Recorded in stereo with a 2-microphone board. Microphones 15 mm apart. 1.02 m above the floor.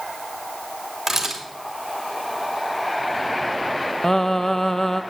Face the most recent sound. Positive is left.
turn(degrees=30)  # may be behind; listen again after turning